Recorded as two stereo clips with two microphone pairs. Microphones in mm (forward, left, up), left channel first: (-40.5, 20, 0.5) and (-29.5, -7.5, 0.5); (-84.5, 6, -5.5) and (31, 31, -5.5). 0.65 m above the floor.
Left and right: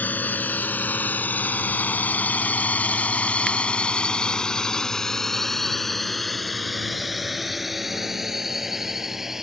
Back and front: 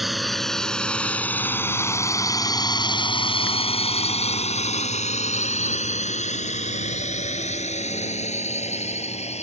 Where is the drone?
100° left; by 9.4 s 145° right.